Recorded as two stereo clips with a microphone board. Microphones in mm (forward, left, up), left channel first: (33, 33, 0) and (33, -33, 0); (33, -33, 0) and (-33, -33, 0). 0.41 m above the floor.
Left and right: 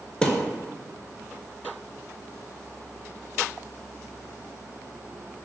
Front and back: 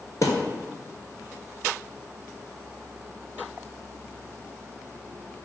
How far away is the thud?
About 0.6 m.